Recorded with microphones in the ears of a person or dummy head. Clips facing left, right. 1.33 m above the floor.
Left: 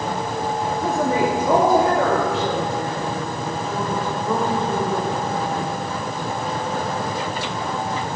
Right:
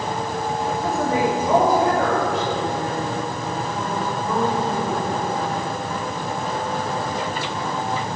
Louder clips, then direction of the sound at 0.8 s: Left 2 dB; 80° left.